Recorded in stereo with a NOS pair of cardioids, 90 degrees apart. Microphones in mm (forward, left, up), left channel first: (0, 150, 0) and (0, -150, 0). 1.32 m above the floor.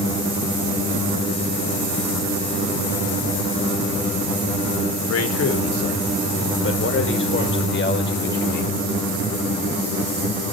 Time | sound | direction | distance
5.1 | a man speaking | 55° left | 4.5 m